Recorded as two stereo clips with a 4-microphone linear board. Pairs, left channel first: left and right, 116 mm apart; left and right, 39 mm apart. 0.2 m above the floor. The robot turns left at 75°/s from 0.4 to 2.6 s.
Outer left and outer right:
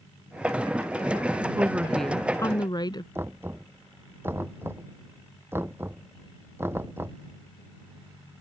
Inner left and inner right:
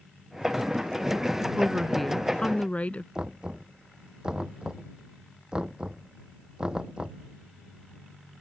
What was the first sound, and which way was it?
A woman speaking, 150° right.